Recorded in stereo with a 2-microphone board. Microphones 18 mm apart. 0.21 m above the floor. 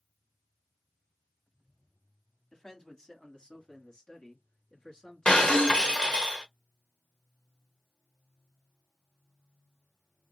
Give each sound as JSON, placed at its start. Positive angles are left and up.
{"t": 2.5, "sound": "a man speaking", "side_deg": 30, "distance_m": 1.5}
{"t": 5.2, "sound": "breaking glass", "side_deg": 80, "distance_m": 1.8}